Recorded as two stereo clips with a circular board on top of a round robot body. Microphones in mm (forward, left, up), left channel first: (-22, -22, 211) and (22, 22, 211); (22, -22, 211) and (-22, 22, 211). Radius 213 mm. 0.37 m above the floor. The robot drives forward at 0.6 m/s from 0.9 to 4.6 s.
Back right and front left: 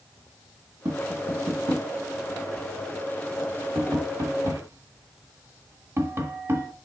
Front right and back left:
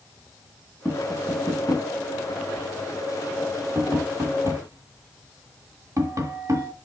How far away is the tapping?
About 2.5 m.